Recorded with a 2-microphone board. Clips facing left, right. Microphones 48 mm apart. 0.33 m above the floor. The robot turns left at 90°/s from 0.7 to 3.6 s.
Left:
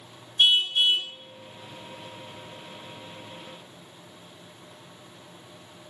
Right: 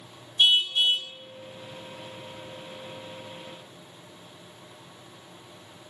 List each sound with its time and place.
0.4 s a car horn: 125° left, 2.5 m; by 1.1 s 90° left, 2.5 m